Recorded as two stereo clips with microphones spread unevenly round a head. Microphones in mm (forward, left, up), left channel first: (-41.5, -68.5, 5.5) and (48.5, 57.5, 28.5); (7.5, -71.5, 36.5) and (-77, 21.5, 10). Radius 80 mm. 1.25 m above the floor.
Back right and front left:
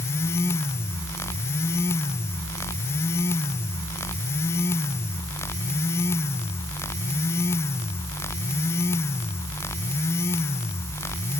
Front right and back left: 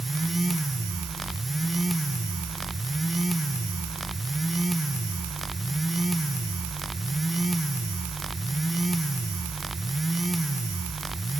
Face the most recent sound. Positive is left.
No sound to turn to.